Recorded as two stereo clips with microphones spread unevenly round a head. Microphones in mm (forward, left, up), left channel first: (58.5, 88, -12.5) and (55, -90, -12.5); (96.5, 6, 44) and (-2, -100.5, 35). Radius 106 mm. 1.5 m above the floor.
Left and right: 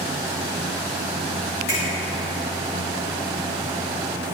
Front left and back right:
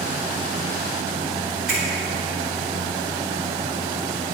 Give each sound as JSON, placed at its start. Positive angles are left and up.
{"t": 1.7, "sound": "a finger snap", "azimuth_deg": 135, "distance_m": 3.5}